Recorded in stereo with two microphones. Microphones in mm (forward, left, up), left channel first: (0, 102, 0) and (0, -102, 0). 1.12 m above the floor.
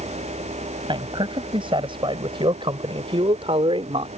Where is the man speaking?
25° right (ahead or behind); by 4.1 s 30° right (ahead or behind).